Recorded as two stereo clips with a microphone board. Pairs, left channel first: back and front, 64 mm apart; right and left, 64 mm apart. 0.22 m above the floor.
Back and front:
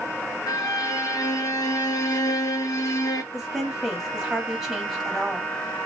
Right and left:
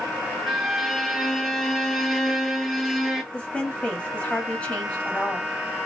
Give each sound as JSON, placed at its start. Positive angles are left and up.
{"t": 0.5, "sound": "a violin", "azimuth_deg": 175, "distance_m": 0.8}
{"t": 3.3, "sound": "a woman speaking", "azimuth_deg": -70, "distance_m": 1.1}